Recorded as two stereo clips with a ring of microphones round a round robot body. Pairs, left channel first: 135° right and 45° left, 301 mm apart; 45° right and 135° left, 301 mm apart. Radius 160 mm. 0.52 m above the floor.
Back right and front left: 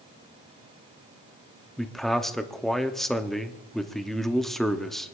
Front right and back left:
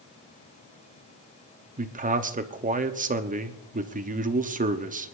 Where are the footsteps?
I don't hear footsteps.